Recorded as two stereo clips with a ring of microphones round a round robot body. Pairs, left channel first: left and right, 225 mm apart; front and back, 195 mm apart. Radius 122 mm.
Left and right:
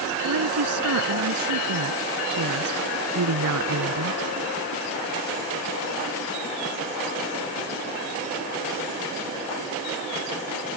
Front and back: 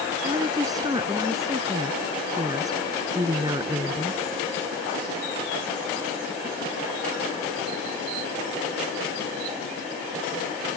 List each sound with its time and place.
0.2 s a woman speaking: 105° right